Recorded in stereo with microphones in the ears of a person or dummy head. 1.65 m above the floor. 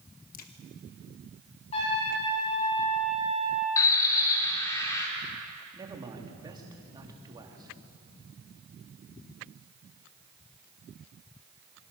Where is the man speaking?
15° right (ahead or behind), 3.5 m.